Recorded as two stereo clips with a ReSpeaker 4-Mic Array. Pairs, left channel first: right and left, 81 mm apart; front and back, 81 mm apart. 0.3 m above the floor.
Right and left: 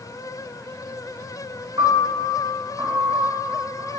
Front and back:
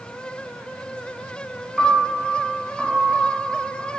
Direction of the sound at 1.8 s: 95° left.